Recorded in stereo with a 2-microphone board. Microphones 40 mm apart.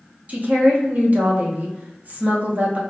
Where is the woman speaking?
40° right (ahead or behind), 0.8 m.